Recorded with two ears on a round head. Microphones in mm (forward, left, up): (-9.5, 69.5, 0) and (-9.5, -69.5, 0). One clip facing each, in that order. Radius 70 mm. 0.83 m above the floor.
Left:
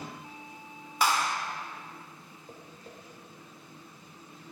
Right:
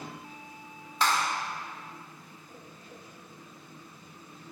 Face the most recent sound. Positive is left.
turn(degrees=30)  # may be behind; listen again after turning